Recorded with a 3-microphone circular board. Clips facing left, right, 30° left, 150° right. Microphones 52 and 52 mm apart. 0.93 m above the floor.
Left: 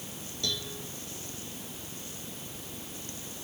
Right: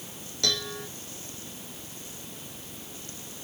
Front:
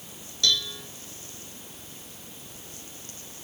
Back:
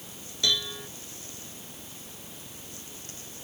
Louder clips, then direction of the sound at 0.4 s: Right 6 dB, front 2 dB; 75° right.